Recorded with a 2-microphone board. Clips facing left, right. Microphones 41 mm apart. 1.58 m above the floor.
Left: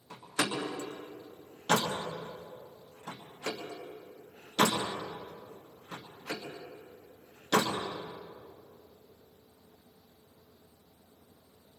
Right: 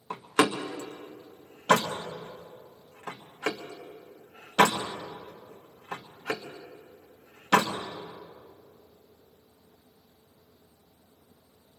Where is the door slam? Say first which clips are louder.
Right 8 dB; 65° right (ahead or behind), 1.6 m.